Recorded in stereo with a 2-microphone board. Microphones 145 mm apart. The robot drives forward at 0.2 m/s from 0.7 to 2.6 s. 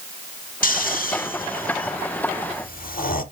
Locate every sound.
0.6 s snoring: 70° left (ahead or behind), 1.0 m; by 3.2 s 85° left, 1.0 m